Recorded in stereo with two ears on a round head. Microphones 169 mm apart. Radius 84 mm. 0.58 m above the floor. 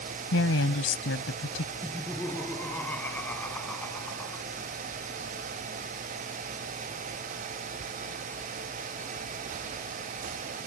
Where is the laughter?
10° left (ahead or behind).